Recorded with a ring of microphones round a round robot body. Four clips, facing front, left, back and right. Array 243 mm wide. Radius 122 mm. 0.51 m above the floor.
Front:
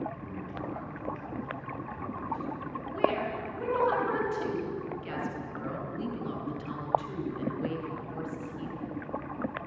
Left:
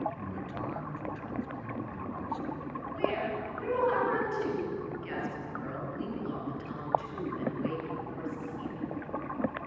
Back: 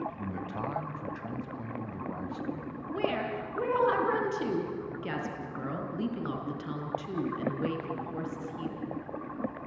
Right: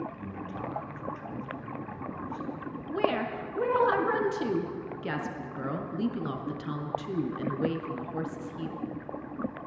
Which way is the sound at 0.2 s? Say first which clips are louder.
Even, back 3 dB; 175° left.